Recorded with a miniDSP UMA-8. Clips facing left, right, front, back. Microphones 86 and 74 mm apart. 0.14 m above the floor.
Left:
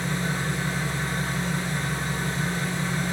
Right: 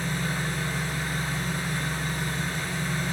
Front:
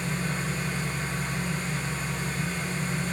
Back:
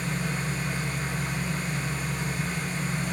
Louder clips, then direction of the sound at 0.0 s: Left 2 dB, even; 100° left.